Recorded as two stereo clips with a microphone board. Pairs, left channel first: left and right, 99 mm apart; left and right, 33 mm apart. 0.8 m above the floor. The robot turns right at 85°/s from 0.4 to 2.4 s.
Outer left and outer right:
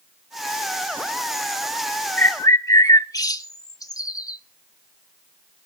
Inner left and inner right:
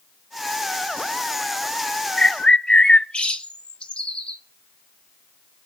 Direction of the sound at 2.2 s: 20° left (ahead or behind).